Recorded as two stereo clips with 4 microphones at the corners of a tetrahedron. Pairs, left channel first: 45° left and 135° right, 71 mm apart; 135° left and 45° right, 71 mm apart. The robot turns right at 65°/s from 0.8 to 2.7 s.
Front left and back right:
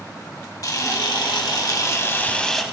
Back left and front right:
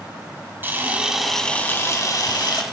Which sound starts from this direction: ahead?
A camera shutter, at 0.6 s.